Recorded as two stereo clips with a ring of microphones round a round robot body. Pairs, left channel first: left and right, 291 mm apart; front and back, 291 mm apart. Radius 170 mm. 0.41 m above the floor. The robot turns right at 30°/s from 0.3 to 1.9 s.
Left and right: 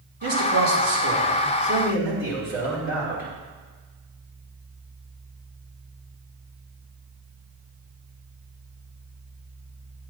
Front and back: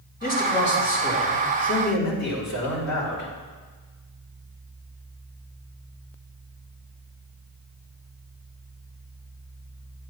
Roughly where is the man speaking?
Ahead right.